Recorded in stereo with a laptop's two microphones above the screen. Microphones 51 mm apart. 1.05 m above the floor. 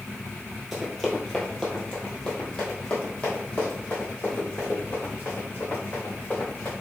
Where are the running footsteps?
5° right (ahead or behind), 1.3 m; by 6.7 s 35° left (ahead or behind), 3.5 m.